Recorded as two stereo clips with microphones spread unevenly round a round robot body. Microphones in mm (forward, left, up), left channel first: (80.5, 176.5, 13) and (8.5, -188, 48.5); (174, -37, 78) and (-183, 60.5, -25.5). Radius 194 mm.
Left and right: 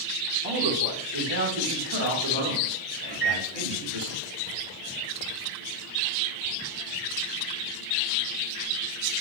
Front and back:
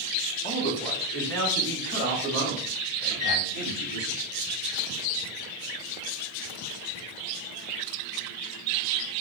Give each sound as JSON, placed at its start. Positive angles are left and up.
{"t": 0.4, "sound": "a man speaking", "azimuth_deg": -100, "distance_m": 0.9}
{"t": 3.1, "sound": "a microwave", "azimuth_deg": -120, "distance_m": 1.3}